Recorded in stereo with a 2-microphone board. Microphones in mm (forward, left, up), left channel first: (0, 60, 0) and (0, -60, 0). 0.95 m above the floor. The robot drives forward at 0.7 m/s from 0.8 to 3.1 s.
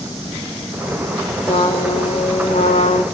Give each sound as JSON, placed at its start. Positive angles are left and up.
{"t": 1.5, "sound": "a trumpet", "side_deg": 55, "distance_m": 2.5}